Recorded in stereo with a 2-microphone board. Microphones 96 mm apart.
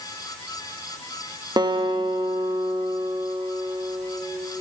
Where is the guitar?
50° right (ahead or behind), 1.6 m.